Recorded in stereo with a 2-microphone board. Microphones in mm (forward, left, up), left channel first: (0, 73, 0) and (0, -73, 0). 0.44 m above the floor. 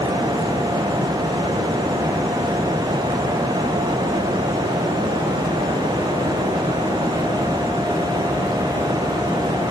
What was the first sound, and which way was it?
Only background noise.